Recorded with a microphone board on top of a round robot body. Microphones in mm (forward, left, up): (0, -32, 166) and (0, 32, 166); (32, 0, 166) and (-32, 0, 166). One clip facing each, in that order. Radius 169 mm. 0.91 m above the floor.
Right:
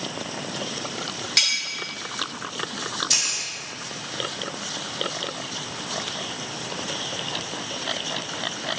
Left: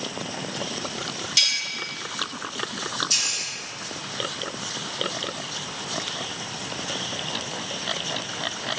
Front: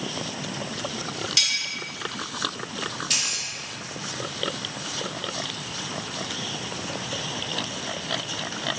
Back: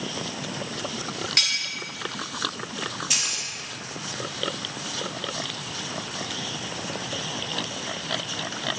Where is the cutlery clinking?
135° right, 1.3 m.